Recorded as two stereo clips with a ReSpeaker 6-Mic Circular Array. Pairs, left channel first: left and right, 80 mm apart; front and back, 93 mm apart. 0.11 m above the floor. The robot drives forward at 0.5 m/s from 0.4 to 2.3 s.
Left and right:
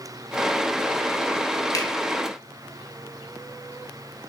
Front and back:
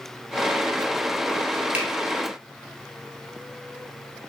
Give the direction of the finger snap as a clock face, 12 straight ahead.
8 o'clock.